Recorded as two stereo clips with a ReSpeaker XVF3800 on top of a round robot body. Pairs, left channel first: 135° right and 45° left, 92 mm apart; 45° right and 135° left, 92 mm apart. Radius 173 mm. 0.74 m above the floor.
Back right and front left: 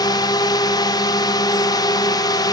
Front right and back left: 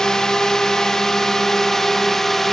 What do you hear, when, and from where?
0.0 s a drone: 125° right; by 2.5 s 130° right